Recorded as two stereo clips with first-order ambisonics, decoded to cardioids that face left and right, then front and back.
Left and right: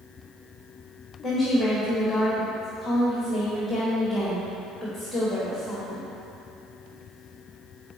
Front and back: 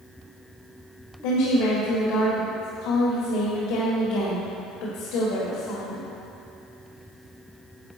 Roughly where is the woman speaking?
Ahead.